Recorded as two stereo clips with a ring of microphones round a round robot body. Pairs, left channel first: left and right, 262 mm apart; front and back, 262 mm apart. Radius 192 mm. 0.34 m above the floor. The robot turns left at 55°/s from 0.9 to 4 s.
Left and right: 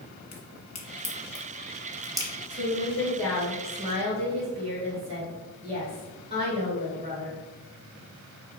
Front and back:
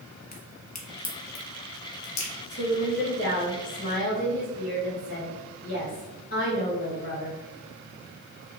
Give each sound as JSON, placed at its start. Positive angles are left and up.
{"t": 0.3, "sound": "a crack", "azimuth_deg": 60, "distance_m": 1.3}
{"t": 2.5, "sound": "a woman speaking", "azimuth_deg": 50, "distance_m": 1.8}